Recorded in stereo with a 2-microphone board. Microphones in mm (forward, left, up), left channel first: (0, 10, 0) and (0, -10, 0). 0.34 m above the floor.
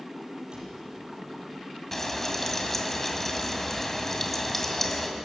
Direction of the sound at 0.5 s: 50° right (ahead or behind).